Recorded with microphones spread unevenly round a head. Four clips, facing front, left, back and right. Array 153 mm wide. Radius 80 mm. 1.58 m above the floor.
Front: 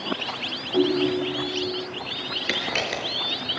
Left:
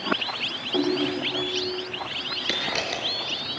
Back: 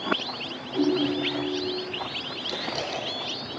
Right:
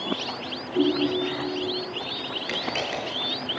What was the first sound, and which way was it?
A ringtone, 60° left.